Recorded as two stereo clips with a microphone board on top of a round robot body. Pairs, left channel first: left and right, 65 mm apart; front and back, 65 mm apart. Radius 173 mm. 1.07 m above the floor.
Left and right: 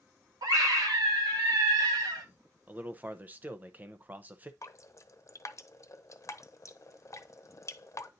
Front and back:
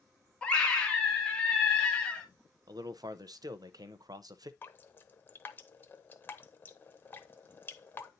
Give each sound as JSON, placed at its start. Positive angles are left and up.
{"t": 0.4, "sound": "a scream", "azimuth_deg": -75, "distance_m": 2.5}
{"t": 2.7, "sound": "a man speaking", "azimuth_deg": -155, "distance_m": 0.7}
{"t": 4.6, "sound": "dripping", "azimuth_deg": 55, "distance_m": 0.9}